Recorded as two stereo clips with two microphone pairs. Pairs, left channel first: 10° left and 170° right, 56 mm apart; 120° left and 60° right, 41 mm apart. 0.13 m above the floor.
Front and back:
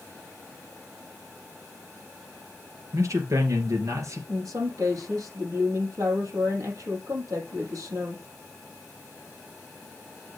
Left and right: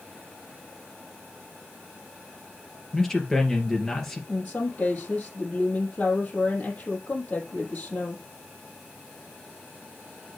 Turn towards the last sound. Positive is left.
turn(degrees=165)